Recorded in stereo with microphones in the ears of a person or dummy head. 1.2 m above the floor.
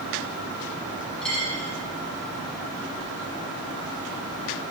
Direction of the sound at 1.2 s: 5° left (ahead or behind).